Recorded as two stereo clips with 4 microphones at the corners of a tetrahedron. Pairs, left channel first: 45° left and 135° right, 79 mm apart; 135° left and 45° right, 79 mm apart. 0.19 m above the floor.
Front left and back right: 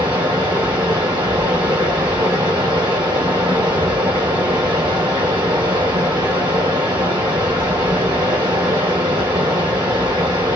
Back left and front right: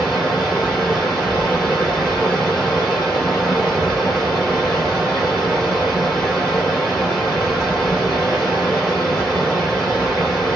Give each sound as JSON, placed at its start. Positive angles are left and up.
{"t": 0.0, "sound": "running water", "azimuth_deg": -130, "distance_m": 1.8}